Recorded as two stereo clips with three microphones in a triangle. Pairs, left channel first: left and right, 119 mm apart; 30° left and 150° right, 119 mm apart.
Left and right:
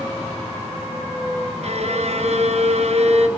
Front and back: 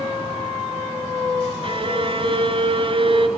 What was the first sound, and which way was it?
A violin, 110° right.